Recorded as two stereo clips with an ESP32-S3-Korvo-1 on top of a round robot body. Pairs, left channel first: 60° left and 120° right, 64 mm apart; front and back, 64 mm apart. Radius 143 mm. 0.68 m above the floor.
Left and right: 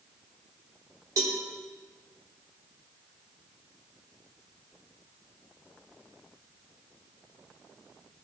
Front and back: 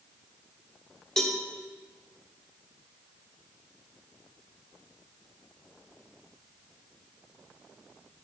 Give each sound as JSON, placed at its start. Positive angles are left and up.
{"t": 1.2, "sound": "a cowbell", "azimuth_deg": -85, "distance_m": 1.2}